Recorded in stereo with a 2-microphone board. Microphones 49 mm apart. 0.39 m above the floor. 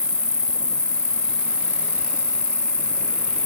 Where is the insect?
85° right, 1.3 m.